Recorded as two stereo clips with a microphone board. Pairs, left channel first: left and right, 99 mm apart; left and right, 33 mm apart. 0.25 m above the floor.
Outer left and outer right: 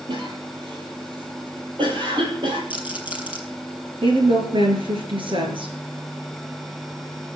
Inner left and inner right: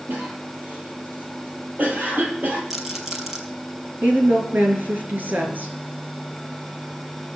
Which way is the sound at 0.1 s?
55° right (ahead or behind).